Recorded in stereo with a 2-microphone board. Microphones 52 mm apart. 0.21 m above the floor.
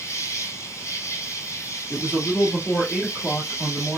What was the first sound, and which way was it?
An insect, 70° left (ahead or behind).